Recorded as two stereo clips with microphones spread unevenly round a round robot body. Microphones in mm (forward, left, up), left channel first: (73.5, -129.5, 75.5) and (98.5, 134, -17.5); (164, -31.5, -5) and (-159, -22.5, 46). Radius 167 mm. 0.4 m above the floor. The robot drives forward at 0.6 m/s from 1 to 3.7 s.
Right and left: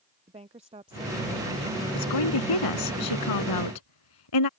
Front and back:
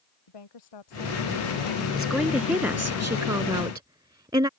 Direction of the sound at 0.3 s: 15° left.